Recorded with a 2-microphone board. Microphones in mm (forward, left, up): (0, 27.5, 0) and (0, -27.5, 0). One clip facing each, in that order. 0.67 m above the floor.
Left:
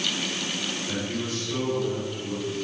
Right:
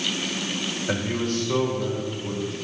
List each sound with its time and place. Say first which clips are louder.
0.9 s a man speaking: right 7 dB; 65° right (ahead or behind), 3 m